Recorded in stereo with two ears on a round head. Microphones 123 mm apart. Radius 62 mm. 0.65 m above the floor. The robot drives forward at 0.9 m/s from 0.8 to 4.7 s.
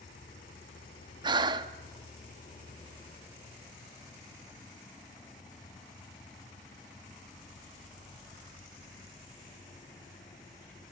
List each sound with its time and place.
0.0 s an insect: 60° left (ahead or behind), 1.8 m; by 10.9 s 30° left (ahead or behind), 3.5 m
1.2 s breathing: 30° right (ahead or behind), 0.8 m